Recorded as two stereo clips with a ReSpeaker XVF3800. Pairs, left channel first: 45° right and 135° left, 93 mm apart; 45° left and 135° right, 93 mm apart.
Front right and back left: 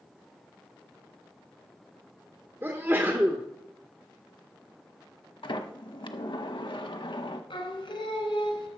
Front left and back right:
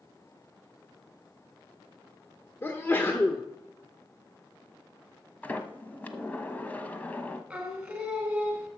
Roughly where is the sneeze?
Left.